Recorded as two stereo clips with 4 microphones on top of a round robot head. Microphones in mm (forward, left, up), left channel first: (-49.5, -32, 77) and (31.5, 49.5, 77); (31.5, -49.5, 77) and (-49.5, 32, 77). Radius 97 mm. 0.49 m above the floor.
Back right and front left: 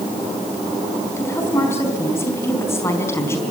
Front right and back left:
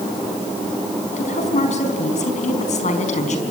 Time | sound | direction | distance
1.2 | a woman speaking | 65° right | 4.5 m